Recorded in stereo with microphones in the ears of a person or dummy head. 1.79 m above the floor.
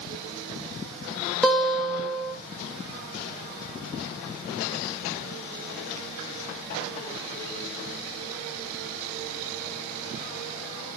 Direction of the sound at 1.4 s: 5° left (ahead or behind).